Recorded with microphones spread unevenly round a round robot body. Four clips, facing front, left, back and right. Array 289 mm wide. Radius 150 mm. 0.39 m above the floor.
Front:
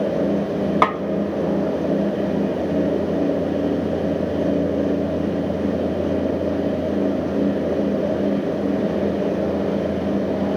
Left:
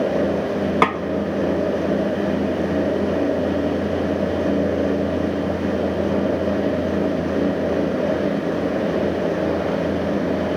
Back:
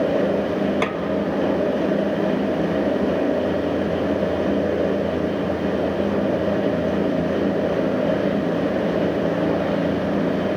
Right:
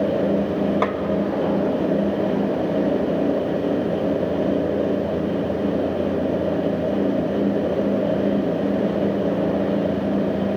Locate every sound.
0.8 s a snare drum: 65° left, 0.7 m